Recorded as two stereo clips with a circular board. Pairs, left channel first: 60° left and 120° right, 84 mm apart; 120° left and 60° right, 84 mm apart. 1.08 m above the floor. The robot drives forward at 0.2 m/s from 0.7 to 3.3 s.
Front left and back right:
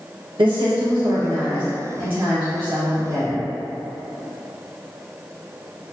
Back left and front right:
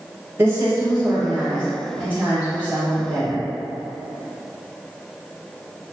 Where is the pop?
I don't hear a pop.